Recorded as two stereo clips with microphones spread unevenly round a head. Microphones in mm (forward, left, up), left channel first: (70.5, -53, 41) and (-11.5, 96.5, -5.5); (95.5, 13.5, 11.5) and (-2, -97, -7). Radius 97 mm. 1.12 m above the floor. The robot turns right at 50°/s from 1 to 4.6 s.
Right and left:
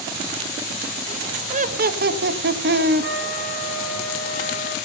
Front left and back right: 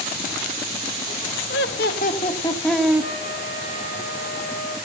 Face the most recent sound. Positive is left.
turn(degrees=180)